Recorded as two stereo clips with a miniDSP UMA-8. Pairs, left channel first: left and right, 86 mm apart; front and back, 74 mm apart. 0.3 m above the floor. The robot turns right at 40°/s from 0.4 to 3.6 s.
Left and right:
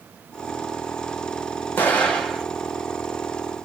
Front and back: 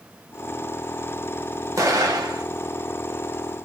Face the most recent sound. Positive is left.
turn(degrees=-135)